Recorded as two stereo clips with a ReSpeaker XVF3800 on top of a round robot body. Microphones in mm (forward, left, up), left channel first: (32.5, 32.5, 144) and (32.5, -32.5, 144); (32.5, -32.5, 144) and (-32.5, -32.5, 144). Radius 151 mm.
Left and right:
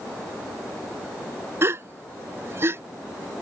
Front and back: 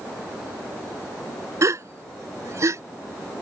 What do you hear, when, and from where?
1.6 s a gasp: 140° right